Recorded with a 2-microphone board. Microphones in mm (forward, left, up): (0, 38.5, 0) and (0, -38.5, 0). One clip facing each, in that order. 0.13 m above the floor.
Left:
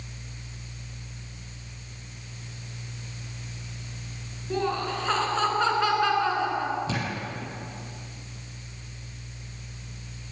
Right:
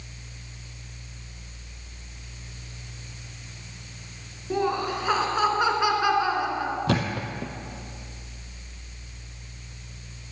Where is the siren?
No siren in this recording.